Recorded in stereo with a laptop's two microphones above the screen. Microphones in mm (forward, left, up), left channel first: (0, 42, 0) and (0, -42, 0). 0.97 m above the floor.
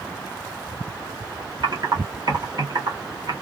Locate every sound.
1.6 s typing on a keyboard: 55° right (ahead or behind), 1.0 m